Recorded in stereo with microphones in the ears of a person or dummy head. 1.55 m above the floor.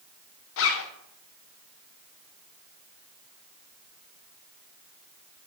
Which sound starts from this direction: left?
A zipper, at 0.6 s.